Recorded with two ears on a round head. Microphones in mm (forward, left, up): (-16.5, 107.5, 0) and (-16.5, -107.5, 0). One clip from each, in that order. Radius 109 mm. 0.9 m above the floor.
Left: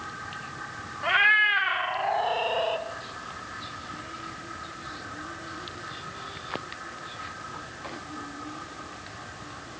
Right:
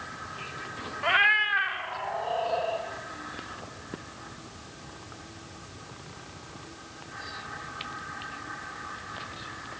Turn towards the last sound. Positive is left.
turn(degrees=55)  # may be behind; listen again after turning